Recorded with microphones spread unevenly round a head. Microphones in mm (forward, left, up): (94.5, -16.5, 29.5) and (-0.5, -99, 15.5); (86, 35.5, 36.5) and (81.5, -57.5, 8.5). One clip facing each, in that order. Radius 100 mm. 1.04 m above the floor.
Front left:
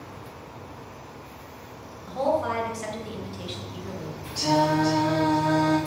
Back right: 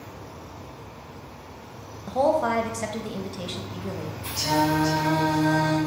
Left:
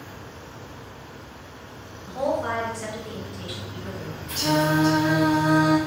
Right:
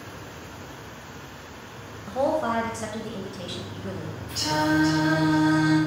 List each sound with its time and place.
2.1 s a woman speaking: 130° right, 0.7 m
4.3 s singing: 130° left, 1.7 m